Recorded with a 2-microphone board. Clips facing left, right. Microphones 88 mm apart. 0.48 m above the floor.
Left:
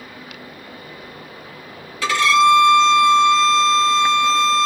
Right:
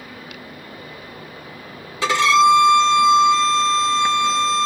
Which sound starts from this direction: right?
A violin, at 2.0 s.